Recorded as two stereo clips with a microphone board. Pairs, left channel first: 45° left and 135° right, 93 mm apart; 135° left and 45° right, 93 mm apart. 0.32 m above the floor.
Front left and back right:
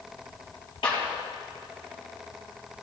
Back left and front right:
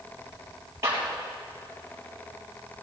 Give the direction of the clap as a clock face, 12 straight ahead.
11 o'clock.